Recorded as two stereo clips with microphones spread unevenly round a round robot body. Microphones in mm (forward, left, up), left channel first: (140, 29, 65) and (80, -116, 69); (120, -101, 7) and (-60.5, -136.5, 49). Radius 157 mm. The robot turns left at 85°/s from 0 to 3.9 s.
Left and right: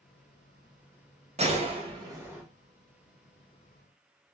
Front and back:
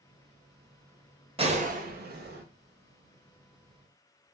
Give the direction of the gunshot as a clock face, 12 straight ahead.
4 o'clock.